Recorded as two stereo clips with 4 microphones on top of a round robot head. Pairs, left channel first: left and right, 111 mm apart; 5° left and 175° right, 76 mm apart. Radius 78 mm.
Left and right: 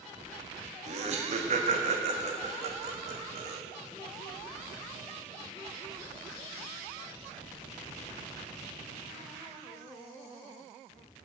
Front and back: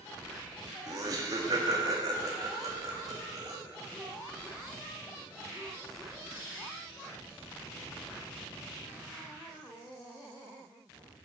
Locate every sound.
0.9 s laughter: 125° right, 1.8 m